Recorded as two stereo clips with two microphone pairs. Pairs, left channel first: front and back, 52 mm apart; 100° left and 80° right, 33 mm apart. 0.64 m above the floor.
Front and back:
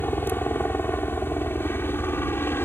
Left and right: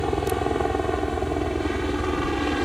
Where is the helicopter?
20° left; by 2.7 s 10° left.